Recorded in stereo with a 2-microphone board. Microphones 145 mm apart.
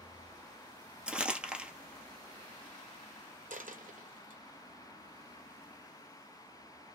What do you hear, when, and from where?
1.1 s crumpling: 10° right (ahead or behind), 0.9 m
3.5 s a dropped coin: 65° right (ahead or behind), 0.6 m